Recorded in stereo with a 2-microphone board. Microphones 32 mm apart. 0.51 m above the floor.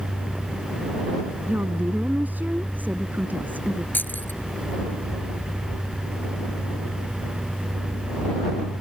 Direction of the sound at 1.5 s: 65° right (ahead or behind).